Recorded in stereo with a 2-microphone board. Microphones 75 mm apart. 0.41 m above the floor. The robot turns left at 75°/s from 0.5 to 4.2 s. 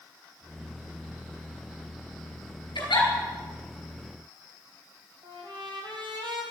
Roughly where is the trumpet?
Right.